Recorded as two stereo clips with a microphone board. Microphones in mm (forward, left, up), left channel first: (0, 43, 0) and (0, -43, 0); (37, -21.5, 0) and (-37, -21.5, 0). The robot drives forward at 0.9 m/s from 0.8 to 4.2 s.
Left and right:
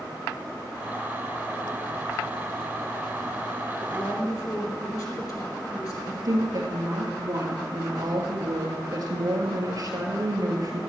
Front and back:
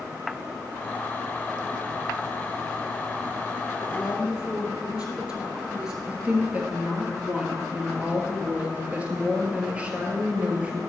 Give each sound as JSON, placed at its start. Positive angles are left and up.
{"t": 3.8, "sound": "a woman speaking", "azimuth_deg": 95, "distance_m": 2.5}
{"t": 6.1, "sound": "a woman speaking", "azimuth_deg": -110, "distance_m": 2.0}